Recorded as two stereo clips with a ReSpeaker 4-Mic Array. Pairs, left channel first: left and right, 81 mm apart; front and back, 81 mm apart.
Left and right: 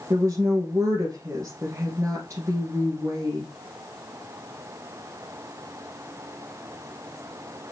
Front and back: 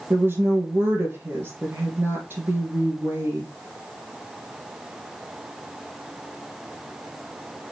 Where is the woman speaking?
130° right, 1.6 m.